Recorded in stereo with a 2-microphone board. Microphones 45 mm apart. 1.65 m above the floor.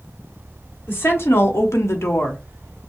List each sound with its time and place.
0.9 s a woman speaking: 55° left (ahead or behind), 2 m; by 2.8 s 15° left (ahead or behind), 1.4 m